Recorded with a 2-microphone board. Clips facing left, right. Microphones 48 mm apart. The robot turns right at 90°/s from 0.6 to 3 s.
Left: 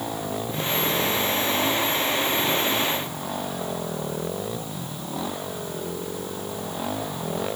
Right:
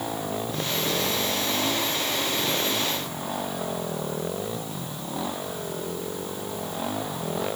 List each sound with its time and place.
Only background noise.